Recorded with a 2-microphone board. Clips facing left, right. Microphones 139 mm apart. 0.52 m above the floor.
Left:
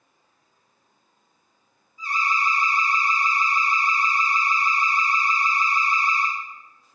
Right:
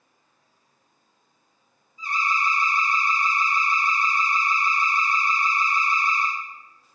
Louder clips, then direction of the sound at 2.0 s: Left 1 dB; 20° right (ahead or behind).